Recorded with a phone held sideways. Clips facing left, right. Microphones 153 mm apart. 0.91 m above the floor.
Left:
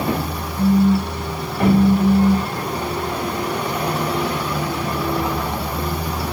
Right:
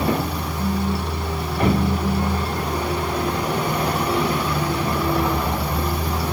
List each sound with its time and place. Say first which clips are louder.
0.6 s a phone buzzing: left 10 dB; 70° left (ahead or behind), 1.8 m